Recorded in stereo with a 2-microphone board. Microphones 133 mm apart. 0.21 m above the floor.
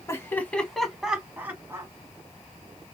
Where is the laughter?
20° left (ahead or behind), 1.4 m; by 1.9 s 20° right (ahead or behind), 1.9 m.